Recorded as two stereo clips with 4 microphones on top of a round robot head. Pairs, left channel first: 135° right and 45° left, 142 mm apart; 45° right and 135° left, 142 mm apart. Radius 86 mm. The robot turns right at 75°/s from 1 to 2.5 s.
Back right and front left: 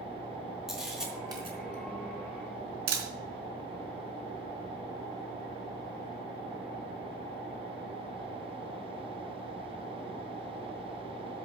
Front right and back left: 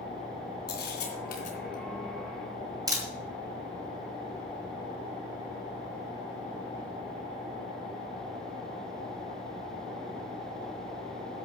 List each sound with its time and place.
0.7 s a camera shutter: 45° right, 4 m; by 3.1 s 70° left, 4 m